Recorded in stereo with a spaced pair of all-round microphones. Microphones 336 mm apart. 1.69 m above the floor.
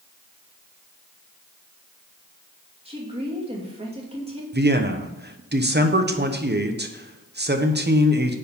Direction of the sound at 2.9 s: 15° right (ahead or behind).